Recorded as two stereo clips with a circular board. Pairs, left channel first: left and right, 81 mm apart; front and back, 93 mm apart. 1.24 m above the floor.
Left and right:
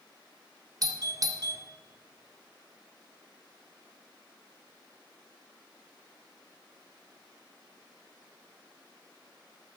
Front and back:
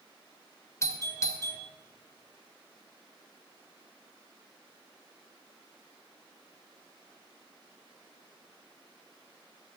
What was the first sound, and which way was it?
A doorbell, 55° right.